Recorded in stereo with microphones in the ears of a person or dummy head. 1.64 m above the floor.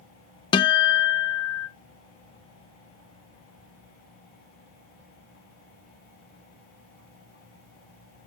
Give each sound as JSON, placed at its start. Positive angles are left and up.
{"t": 0.5, "sound": "a guitar", "side_deg": 30, "distance_m": 0.5}